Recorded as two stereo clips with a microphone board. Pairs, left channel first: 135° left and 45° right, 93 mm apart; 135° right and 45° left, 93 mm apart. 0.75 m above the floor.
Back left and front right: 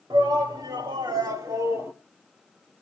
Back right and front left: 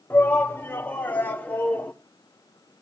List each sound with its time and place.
0.1 s a shout: 70° right, 2 m; by 1.9 s 80° right, 1.2 m